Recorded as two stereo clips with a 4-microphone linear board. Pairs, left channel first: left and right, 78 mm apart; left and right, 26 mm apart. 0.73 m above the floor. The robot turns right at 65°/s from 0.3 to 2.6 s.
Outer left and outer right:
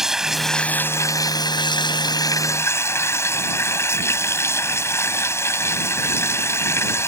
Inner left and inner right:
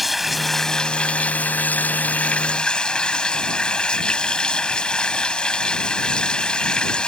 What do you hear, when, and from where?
0.0 s running water: 5° right; by 7.1 s 145° left